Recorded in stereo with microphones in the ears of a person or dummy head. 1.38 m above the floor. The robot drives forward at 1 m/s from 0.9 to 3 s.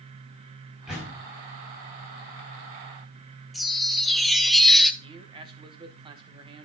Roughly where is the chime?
Centre.